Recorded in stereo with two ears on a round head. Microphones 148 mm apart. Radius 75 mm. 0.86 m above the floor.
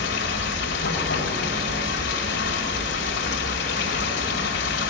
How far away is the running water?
About 2.0 m.